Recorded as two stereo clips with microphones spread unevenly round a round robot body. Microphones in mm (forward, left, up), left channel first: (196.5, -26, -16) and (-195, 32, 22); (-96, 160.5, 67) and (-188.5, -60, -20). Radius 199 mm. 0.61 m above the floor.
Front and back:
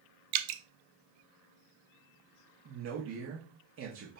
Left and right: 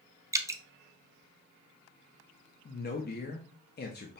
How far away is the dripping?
About 0.5 m.